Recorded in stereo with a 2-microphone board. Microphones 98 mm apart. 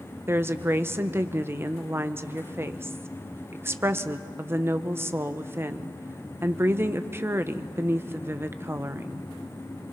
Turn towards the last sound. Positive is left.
turn(degrees=-25)  # may be behind; listen again after turning